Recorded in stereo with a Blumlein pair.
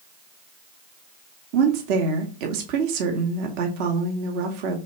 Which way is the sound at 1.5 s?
45° right.